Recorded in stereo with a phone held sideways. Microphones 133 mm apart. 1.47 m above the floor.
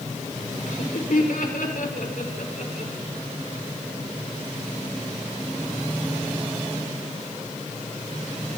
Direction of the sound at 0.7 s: 80° left.